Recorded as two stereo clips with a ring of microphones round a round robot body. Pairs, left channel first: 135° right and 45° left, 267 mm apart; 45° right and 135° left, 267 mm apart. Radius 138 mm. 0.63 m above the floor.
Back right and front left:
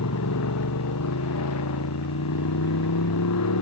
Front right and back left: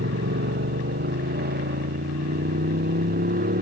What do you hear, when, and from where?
0.0 s a motorcycle: 170° right; by 3.6 s 165° right